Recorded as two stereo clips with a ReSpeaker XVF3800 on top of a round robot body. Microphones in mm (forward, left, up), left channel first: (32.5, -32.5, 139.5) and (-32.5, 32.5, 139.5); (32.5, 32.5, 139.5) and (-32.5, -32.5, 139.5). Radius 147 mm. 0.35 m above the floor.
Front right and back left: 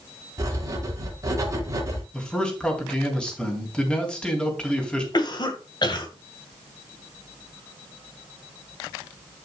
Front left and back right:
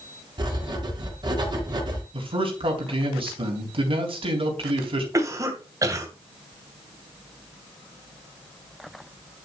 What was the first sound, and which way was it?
Writing, 175° right.